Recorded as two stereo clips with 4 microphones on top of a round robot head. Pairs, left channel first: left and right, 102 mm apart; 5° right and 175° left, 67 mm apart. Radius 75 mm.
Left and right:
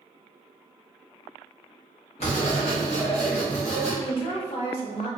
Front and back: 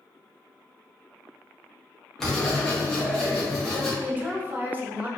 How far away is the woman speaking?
About 0.8 m.